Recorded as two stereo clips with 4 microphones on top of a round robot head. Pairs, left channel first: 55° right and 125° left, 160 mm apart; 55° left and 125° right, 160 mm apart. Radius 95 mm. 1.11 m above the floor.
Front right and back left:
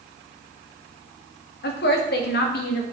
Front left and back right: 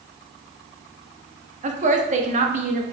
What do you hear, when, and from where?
1.6 s a woman speaking: 80° right, 1.6 m